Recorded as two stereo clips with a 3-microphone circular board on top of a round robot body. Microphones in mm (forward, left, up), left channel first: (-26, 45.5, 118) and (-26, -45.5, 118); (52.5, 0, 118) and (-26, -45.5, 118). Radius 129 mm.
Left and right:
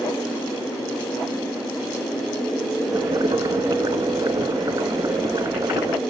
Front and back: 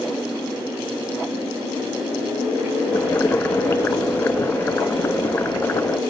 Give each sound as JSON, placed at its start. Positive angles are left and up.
{"t": 2.9, "sound": "boiling", "azimuth_deg": -40, "distance_m": 0.6}